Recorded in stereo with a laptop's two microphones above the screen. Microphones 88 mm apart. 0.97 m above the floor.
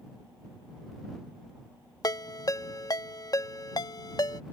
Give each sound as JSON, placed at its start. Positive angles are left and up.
{"t": 2.0, "sound": "a ringtone", "side_deg": 45}